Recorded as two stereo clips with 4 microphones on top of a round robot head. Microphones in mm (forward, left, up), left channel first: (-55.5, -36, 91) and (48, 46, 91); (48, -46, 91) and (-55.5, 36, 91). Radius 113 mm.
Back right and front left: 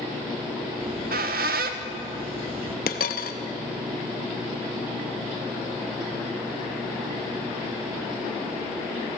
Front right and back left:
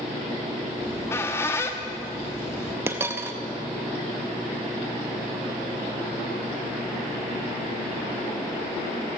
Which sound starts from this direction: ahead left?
A squeak, at 0.8 s.